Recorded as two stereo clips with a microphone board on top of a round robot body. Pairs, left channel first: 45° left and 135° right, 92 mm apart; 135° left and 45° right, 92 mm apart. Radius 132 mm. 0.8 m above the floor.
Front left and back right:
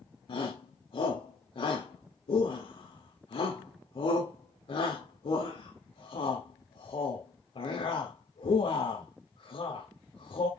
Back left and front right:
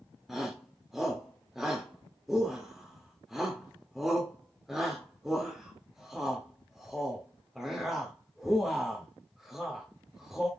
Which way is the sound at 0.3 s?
45° left.